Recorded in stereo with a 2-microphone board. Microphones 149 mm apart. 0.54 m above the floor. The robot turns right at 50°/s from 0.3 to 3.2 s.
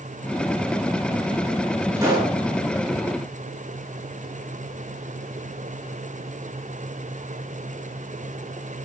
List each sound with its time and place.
2.0 s a pop: 20° right (ahead or behind), 8 m; by 2.4 s 40° right (ahead or behind), 8 m